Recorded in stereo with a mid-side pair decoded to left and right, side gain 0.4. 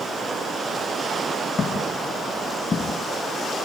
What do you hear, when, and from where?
1.6 s footsteps: 40° left, 6.5 m; by 3.0 s 30° left, 5 m